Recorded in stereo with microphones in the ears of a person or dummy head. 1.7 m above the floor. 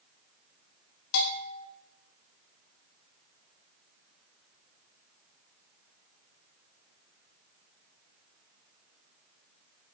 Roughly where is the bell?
Left.